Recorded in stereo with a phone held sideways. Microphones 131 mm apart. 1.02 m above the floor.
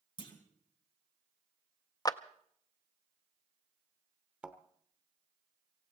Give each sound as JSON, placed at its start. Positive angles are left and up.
{"t": 0.2, "sound": "a clunk", "side_deg": 35, "distance_m": 2.5}
{"t": 2.0, "sound": "a clap", "side_deg": 30, "distance_m": 0.5}
{"t": 4.4, "sound": "a thud", "side_deg": -10, "distance_m": 1.1}